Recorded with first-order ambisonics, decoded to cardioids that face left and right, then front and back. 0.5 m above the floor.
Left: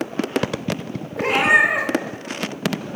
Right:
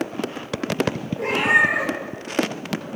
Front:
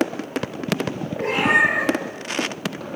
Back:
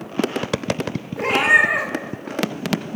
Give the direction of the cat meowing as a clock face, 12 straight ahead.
8 o'clock.